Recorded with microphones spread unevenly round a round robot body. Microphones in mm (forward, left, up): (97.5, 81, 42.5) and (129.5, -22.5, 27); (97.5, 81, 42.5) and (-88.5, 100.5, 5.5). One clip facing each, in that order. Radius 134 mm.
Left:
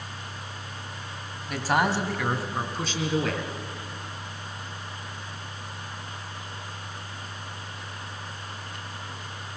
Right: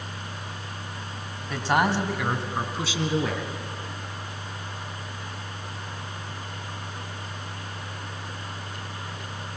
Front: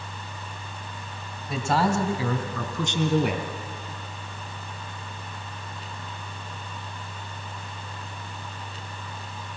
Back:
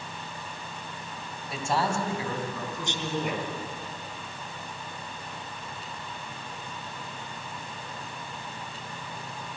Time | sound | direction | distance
1.5 | a man speaking | 20° left | 3 m